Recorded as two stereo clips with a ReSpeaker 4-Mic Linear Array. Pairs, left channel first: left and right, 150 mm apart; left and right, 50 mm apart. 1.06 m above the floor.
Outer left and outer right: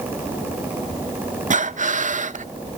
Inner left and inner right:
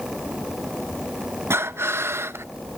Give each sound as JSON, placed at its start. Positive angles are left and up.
{"t": 1.5, "sound": "breathing", "side_deg": -55, "distance_m": 0.5}